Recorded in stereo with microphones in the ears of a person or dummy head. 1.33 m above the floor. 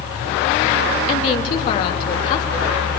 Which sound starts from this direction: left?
A woman speaking, at 1.1 s.